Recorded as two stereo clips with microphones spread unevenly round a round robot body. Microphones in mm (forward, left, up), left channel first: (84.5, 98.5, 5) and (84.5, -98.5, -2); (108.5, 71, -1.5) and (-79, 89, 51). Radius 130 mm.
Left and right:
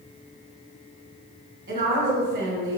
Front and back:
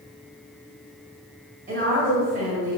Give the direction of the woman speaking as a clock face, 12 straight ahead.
4 o'clock.